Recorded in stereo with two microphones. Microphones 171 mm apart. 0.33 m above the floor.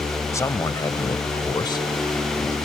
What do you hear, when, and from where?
0.3 s a man speaking: 20° left (ahead or behind)